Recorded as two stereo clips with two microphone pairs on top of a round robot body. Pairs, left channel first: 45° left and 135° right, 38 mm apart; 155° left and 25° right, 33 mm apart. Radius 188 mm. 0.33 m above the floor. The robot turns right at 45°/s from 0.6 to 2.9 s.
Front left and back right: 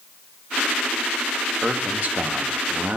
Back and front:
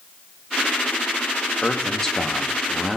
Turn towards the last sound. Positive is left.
turn(degrees=-110)